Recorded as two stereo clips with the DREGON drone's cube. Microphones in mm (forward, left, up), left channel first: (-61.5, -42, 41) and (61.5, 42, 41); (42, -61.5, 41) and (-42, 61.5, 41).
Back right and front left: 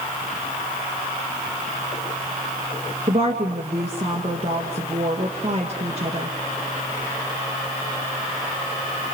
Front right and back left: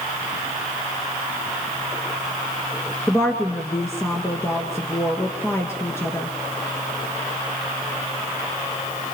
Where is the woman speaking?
10° left, 2.5 m.